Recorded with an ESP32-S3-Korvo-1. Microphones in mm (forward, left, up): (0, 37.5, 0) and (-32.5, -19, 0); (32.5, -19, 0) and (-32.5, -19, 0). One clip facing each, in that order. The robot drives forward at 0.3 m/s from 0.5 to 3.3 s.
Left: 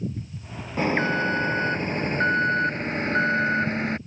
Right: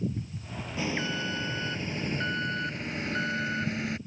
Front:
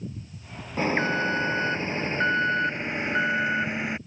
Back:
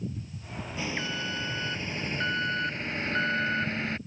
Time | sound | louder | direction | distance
0.8 | an alarm | left 9 dB, front 10 dB | 35° left | ?